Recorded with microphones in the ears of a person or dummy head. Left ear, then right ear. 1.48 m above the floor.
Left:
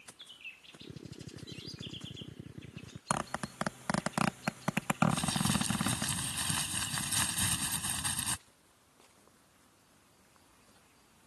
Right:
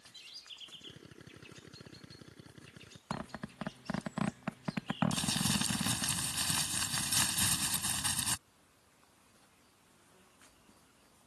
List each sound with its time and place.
0.8 s a drill: 55° right (ahead or behind)
3.1 s a zipper: 30° left (ahead or behind)
5.1 s crumpling: 10° right (ahead or behind)